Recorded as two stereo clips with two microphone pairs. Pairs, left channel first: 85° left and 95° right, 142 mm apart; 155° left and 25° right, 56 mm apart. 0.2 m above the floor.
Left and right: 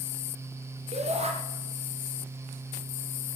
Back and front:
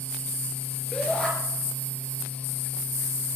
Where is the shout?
130° right, 3.5 m.